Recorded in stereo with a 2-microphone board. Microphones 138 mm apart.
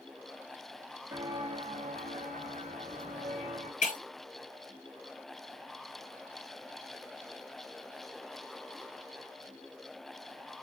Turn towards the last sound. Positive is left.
turn(degrees=70)  # may be behind; listen again after turning